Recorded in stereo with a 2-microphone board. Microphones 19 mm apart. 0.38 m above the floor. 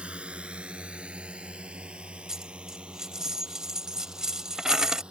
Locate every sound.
0.0 s a drone: 75° right (ahead or behind); by 5.1 s 60° right (ahead or behind)
2.3 s a dropped coin: 30° right (ahead or behind)